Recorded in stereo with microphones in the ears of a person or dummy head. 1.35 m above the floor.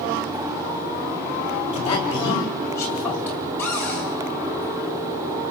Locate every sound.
1.7 s a man speaking: 25° left (ahead or behind), 6 m; by 3.5 s 5° left (ahead or behind), 6.5 m
3.6 s a cupboard door: 10° left (ahead or behind), 9 m